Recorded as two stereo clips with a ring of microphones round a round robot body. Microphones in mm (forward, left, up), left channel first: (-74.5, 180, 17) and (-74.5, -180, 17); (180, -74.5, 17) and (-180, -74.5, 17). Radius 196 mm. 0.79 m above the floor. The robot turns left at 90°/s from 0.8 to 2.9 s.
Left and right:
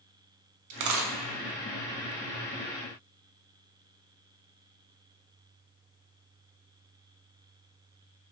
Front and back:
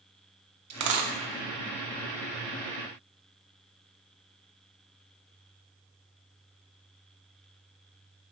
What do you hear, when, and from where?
0.7 s a dropped coin: 130° right, 0.7 m; by 1.1 s 160° right, 0.7 m